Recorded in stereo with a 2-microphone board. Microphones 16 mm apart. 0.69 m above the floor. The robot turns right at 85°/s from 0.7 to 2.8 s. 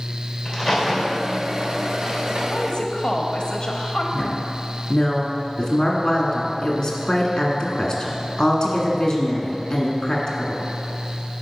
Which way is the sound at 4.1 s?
35° left (ahead or behind).